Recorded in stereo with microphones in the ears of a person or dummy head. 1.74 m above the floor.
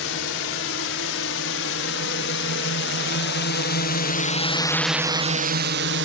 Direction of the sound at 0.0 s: 80° left.